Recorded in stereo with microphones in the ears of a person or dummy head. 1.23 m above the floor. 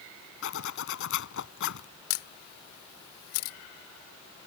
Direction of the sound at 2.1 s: 70° left (ahead or behind).